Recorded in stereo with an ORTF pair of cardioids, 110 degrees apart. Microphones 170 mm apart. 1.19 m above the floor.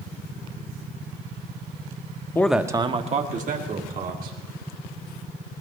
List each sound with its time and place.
2.4 s a man speaking: 15° left, 0.9 m; by 4.4 s 60° right, 3 m